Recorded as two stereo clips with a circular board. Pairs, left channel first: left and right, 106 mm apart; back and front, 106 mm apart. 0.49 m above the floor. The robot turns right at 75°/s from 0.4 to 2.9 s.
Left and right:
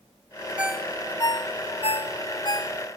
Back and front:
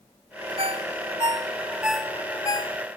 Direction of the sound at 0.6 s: 15° right.